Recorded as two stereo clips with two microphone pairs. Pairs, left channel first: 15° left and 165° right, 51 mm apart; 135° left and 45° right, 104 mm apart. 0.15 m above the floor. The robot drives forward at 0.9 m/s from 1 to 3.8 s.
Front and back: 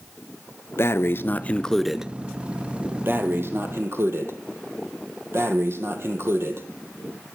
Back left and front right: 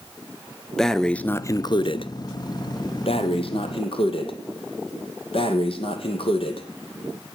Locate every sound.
0.8 s breathing: 50° left, 0.9 m; by 6.7 s 165° left, 2 m